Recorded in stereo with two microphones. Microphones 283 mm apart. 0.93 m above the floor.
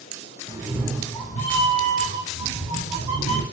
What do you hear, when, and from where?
0.5 s a cat meowing: 20° right (ahead or behind), 0.8 m; by 3.4 s 75° left (ahead or behind), 1.9 m